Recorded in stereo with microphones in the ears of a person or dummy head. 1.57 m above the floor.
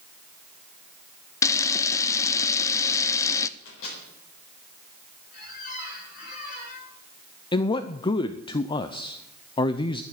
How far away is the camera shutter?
About 0.6 m.